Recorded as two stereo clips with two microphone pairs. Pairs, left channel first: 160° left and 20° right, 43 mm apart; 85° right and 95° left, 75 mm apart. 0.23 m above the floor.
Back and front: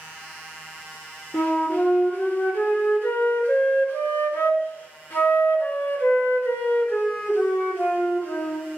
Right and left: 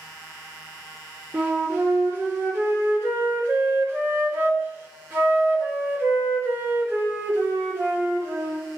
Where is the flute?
150° left, 2.5 m.